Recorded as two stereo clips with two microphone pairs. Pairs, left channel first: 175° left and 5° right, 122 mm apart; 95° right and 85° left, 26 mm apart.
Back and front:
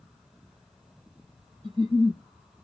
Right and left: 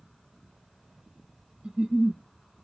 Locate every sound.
1.6 s a giggle: 40° left, 1.9 m